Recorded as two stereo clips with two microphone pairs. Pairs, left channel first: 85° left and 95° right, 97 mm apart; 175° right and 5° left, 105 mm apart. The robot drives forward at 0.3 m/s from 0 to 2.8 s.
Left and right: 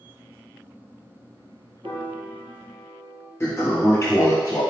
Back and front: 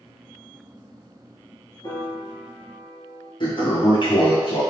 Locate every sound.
1.8 s a piano: 130° right, 1.6 m; by 3.3 s 135° right, 1.8 m
3.4 s a toilet flushing: 150° left, 1.5 m